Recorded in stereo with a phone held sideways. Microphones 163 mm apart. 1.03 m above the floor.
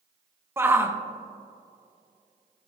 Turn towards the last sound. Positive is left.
turn(degrees=-15)  # may be behind; listen again after turning